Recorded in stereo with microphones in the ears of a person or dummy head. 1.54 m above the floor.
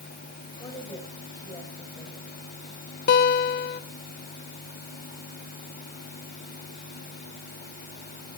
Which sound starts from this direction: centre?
A woman speaking, at 0.6 s.